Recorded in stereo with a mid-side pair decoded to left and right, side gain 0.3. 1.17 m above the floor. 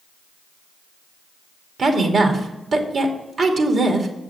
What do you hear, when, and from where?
1.8 s a woman speaking: 65° right, 2.5 m